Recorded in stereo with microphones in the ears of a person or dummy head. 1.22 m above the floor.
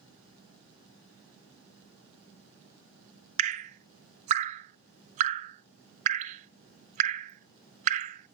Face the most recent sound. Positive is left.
turn(degrees=-35)  # may be behind; listen again after turning